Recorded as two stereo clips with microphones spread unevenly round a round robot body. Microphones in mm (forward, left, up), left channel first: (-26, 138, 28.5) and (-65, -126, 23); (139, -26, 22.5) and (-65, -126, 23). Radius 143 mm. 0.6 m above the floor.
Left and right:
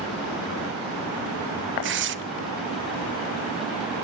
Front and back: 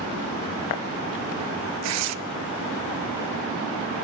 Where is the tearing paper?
150° right, 0.6 m.